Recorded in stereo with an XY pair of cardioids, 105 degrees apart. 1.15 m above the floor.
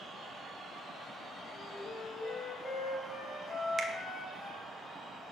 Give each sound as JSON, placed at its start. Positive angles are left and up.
{"t": 1.5, "sound": "a flute", "azimuth_deg": 45, "distance_m": 1.7}
{"t": 3.8, "sound": "a finger snap", "azimuth_deg": -30, "distance_m": 0.8}